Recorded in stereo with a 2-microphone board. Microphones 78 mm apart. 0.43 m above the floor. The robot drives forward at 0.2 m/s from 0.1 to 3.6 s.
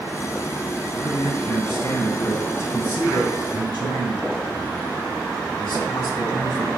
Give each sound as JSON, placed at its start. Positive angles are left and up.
{"t": 0.9, "sound": "a man speaking", "side_deg": 60, "distance_m": 3.5}